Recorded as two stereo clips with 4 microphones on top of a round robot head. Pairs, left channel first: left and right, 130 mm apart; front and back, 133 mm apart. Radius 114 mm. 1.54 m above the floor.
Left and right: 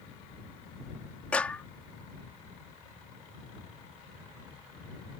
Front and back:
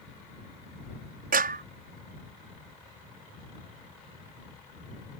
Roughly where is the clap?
Behind.